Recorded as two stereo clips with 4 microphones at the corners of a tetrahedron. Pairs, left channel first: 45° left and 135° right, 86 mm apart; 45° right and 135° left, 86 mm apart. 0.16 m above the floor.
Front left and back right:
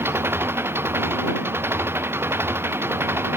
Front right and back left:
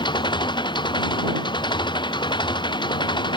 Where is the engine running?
70° right.